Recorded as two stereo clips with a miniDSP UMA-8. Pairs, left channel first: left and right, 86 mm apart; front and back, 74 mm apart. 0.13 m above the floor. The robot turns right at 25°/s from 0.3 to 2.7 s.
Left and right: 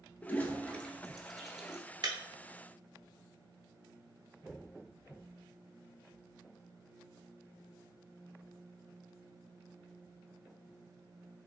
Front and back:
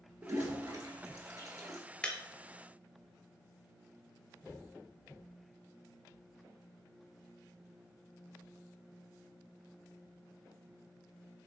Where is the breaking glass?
75° right, 0.6 m; by 2.2 s 70° right, 0.6 m.